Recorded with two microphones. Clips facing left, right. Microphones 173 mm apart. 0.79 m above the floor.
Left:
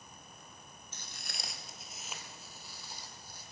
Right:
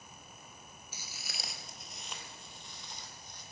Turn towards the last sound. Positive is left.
turn(degrees=10)  # may be behind; listen again after turning